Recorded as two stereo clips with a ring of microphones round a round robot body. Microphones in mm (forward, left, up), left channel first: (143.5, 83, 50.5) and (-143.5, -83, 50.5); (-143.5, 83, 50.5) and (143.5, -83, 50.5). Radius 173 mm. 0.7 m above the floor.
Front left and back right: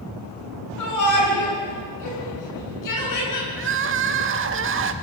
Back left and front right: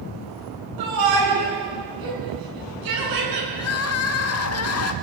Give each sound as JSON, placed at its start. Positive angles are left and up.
{"t": 0.8, "sound": "a shout", "azimuth_deg": -10, "distance_m": 9.5}
{"t": 3.6, "sound": "crying", "azimuth_deg": 170, "distance_m": 1.4}